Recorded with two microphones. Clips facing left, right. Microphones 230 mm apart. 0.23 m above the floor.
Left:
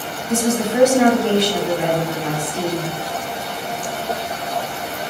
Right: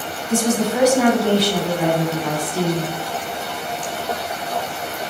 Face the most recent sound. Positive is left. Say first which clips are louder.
# even
turn(degrees=25)  # may be behind; listen again after turning